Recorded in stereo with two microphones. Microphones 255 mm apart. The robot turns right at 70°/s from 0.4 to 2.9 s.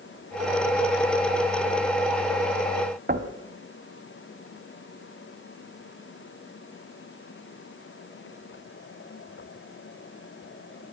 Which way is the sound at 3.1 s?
35° right (ahead or behind).